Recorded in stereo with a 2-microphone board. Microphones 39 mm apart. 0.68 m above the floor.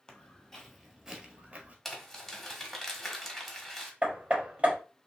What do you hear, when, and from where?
0.1 s footsteps: 20° left (ahead or behind), 1.2 m; by 1.8 s 35° right (ahead or behind), 0.9 m
1.9 s crumpling: 5° left (ahead or behind), 0.9 m
4.0 s hammering: 35° right (ahead or behind), 1.0 m